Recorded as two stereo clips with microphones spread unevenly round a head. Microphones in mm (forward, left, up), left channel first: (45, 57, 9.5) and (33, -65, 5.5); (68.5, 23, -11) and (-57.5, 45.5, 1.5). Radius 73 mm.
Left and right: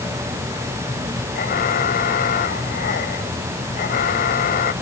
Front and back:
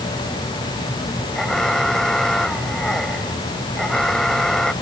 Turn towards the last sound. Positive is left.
turn(degrees=75)